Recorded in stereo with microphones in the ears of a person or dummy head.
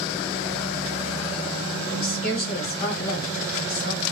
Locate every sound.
1.9 s a woman speaking: 70° left (ahead or behind), 1.5 m